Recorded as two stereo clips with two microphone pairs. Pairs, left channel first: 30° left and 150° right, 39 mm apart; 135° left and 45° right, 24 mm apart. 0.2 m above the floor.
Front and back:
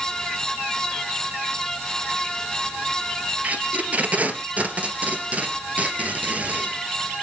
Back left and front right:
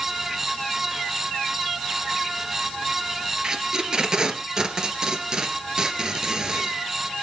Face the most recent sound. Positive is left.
turn(degrees=-100)